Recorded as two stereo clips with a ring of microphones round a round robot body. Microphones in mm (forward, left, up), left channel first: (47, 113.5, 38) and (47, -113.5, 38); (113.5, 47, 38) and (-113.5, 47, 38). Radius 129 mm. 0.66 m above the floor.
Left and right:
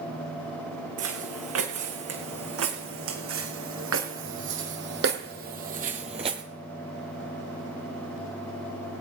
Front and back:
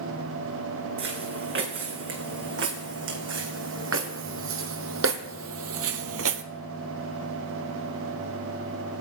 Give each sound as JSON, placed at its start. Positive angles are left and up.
{"t": 1.0, "sound": "footsteps", "azimuth_deg": -130, "distance_m": 3.5}